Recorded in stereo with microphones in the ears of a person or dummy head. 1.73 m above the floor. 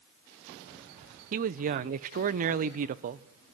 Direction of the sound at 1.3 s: 40° right (ahead or behind).